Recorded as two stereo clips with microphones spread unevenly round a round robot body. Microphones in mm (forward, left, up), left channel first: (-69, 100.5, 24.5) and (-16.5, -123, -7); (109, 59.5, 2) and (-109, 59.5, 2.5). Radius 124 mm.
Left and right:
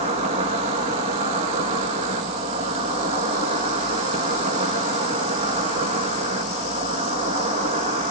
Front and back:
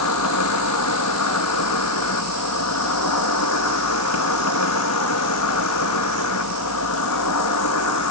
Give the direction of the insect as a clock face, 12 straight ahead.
12 o'clock.